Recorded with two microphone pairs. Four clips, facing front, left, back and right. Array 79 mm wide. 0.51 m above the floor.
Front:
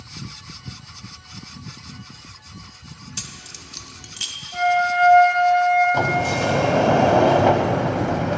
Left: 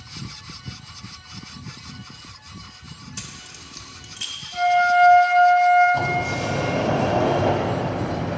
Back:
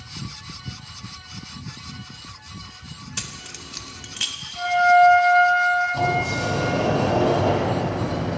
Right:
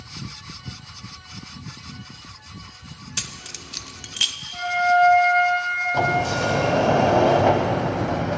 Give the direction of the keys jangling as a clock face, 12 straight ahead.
4 o'clock.